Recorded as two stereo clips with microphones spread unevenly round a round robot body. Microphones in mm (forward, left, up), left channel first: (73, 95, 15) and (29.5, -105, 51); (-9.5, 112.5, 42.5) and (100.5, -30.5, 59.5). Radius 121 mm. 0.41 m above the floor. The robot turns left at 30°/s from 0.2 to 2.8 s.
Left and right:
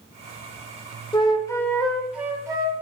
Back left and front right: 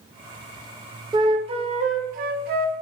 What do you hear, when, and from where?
1.1 s a flute: 20° left, 0.5 m; by 2.7 s 30° right, 0.5 m